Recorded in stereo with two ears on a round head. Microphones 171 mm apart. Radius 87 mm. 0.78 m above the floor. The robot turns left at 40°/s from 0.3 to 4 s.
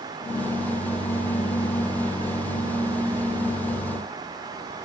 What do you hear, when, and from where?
Only background noise.